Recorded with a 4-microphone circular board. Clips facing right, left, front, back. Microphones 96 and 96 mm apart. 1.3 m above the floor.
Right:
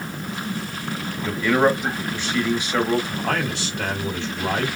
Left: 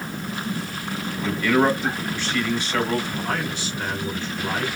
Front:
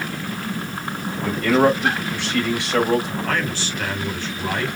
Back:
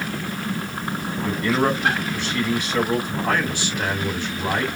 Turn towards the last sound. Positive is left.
turn(degrees=-105)